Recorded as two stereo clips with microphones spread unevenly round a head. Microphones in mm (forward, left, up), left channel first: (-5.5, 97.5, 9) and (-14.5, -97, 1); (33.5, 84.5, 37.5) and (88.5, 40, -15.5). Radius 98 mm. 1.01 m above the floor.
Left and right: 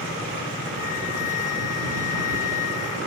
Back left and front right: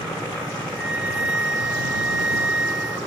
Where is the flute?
35° left.